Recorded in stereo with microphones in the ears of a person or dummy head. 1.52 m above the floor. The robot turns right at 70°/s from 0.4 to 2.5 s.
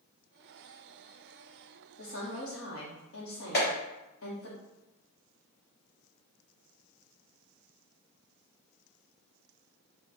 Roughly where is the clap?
Left.